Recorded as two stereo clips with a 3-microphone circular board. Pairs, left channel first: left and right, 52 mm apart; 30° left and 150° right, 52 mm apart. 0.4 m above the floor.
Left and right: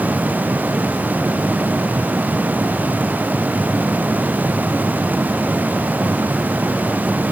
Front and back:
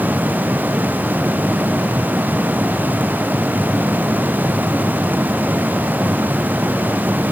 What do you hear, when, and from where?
Only background noise.